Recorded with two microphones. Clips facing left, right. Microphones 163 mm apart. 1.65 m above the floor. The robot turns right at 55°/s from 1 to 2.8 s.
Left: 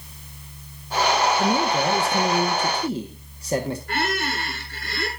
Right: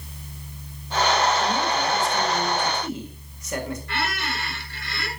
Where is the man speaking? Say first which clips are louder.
Left 3 dB; 70° left, 1.4 m; by 3.8 s 145° left, 1.4 m.